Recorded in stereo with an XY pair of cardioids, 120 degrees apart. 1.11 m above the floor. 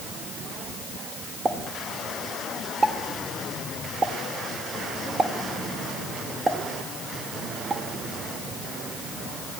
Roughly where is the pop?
Ahead right.